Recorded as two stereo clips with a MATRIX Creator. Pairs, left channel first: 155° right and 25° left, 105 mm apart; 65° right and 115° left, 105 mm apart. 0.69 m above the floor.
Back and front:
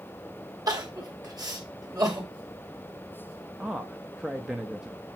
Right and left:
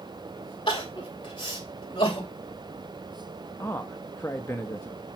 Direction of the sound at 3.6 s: 50° right.